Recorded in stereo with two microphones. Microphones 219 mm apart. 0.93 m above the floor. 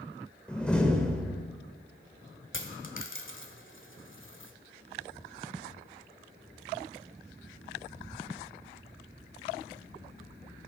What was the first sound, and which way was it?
A door slam, 5° left (ahead or behind).